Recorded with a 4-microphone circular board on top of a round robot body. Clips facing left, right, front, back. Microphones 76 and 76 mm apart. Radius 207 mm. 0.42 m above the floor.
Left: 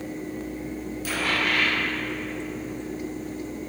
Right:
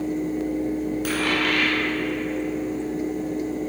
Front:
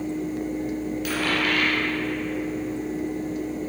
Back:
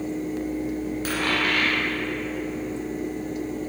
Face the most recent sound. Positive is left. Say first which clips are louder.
# even, even
turn(degrees=-125)